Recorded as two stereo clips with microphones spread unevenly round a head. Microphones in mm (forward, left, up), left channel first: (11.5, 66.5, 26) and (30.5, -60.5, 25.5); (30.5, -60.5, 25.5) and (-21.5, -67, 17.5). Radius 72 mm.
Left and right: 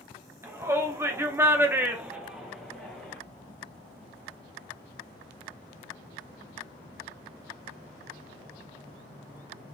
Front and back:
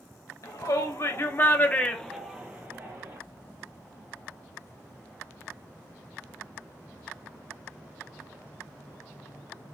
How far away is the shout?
About 1.0 m.